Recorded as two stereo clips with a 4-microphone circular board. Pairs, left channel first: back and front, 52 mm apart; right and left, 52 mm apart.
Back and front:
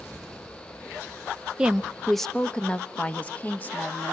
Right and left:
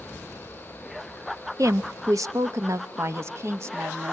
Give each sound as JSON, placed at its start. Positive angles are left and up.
{"t": 1.6, "sound": "a woman speaking", "azimuth_deg": 75, "distance_m": 0.8}